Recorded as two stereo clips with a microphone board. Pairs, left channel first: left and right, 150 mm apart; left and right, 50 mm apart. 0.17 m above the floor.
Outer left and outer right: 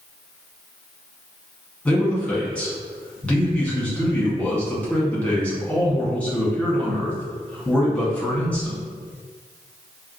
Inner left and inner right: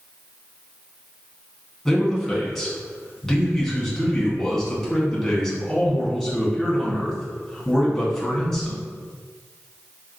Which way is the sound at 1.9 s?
10° left (ahead or behind).